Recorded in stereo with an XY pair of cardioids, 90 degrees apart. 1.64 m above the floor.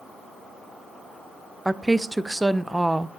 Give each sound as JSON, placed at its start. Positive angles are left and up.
{"t": 1.6, "sound": "a woman speaking", "azimuth_deg": -10, "distance_m": 0.6}